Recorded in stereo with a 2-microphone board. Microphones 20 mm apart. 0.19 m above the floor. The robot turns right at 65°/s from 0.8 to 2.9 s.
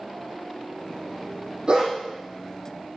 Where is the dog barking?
45° right (ahead or behind), 4 m; by 1.9 s 30° right (ahead or behind), 4 m.